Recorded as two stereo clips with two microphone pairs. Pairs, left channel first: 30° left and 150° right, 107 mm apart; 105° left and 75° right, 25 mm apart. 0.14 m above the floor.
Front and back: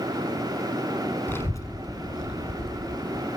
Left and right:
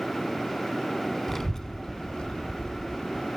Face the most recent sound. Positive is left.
turn(degrees=65)